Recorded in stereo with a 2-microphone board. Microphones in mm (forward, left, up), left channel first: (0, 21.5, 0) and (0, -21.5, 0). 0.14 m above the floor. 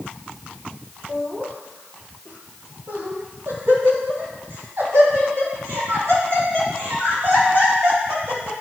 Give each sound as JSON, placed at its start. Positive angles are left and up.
{"t": 1.1, "sound": "laughter", "side_deg": -55, "distance_m": 2.0}